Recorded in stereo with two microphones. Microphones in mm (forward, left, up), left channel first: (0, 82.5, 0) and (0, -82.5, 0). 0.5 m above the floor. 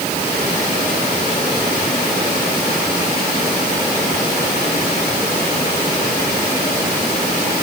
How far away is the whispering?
No whispering in this recording.